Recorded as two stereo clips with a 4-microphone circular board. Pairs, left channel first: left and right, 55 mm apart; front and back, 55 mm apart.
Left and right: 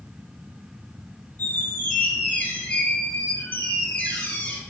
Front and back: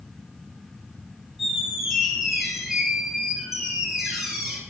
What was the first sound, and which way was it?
A squeak, 100° left.